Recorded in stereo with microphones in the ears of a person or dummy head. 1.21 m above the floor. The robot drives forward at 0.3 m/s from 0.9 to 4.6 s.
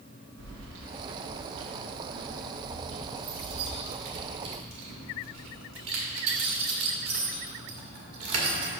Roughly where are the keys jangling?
Right.